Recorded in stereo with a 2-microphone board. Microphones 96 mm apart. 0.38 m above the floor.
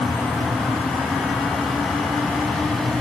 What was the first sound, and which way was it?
Only background noise.